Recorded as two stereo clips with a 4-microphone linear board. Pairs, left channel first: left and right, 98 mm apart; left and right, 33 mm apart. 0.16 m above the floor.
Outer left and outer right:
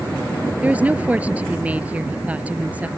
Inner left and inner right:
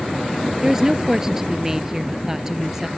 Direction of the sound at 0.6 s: 15° right (ahead or behind).